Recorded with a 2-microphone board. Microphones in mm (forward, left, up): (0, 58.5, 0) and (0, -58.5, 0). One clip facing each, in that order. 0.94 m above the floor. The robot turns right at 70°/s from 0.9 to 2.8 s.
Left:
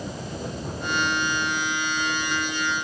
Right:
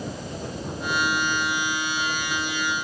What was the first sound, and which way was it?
Only background noise.